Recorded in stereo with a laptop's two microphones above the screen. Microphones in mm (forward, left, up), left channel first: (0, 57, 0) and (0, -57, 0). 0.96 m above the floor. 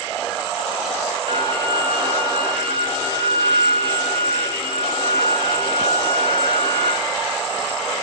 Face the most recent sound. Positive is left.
turn(degrees=-55)  # may be behind; listen again after turning